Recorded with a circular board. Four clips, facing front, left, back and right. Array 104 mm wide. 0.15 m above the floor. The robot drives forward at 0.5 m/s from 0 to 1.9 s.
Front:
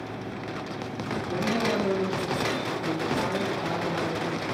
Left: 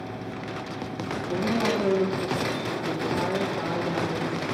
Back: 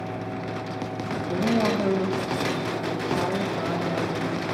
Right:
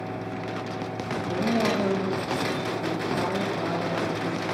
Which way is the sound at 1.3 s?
145° right.